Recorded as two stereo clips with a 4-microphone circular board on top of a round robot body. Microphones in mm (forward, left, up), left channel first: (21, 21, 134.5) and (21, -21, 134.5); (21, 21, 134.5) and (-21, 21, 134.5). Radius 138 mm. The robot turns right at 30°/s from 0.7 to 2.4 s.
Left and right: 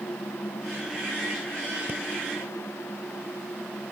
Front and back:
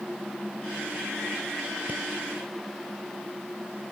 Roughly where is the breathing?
Behind right.